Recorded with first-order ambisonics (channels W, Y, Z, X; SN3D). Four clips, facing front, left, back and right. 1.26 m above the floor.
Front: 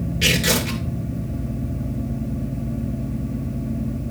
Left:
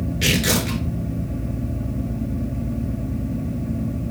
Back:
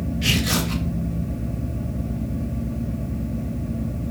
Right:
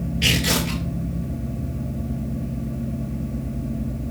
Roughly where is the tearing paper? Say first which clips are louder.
Even, front 3 dB; ahead left.